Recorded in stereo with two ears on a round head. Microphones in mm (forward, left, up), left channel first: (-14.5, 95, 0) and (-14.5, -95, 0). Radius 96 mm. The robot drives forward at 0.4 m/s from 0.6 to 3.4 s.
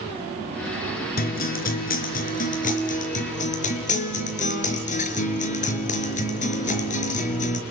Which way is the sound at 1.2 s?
45° left (ahead or behind).